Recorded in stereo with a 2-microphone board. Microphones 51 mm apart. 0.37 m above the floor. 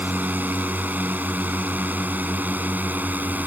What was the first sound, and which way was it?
A drone, 35° right (ahead or behind).